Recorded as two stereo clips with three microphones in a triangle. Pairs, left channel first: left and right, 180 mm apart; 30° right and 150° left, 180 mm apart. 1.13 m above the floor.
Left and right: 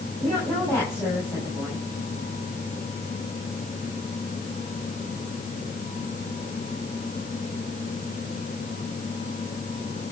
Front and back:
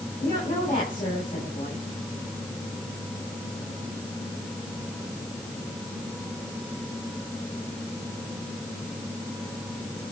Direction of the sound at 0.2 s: 10° left.